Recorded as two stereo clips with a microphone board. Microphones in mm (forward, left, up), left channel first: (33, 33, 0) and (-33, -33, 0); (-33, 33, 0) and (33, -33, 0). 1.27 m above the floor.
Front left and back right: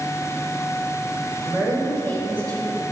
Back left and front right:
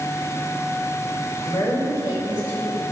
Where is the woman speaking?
165° right, 4 m; by 2.8 s 175° right, 4 m.